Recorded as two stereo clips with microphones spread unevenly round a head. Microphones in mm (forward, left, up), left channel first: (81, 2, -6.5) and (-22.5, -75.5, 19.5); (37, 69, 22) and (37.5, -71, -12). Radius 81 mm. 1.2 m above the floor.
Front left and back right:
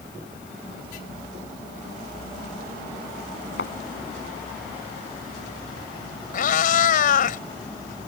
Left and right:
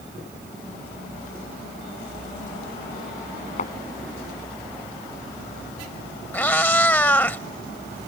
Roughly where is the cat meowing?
Ahead.